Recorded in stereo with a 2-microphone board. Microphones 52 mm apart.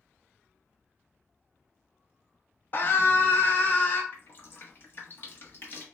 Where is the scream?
40° left (ahead or behind), 0.6 m; by 4.0 s 35° left (ahead or behind), 1.3 m.